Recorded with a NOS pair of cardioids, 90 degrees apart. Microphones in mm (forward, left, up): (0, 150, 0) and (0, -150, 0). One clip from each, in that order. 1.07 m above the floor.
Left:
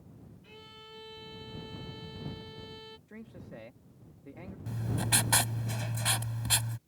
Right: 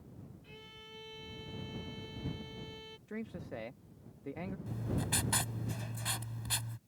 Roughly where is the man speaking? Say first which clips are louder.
Right 5 dB; ahead right.